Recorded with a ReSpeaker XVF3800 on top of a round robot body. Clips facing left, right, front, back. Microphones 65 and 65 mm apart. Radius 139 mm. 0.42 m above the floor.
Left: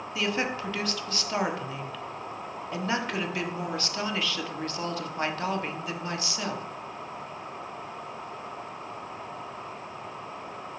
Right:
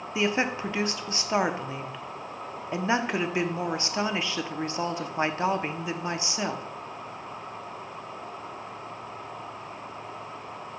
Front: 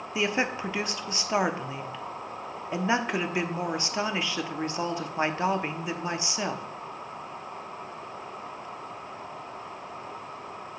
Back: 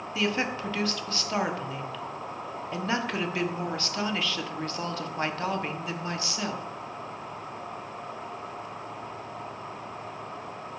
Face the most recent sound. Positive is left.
turn(degrees=-50)